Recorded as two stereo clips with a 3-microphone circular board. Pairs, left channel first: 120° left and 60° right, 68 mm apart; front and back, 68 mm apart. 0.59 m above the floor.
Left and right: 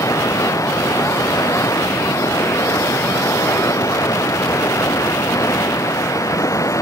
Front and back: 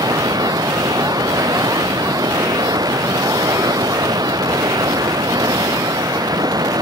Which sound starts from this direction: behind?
Running water, at 0.0 s.